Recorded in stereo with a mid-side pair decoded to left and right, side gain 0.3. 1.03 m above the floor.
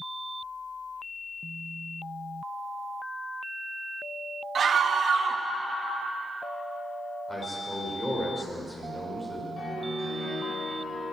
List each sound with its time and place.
4.5 s a scream: 65° right, 1.3 m
7.3 s a man speaking: 15° left, 5 m
9.6 s a piano: 50° left, 5.5 m